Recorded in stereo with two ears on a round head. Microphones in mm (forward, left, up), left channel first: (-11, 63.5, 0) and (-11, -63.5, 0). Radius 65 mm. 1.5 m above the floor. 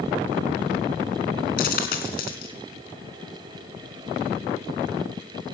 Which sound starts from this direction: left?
A dropped coin, at 1.6 s.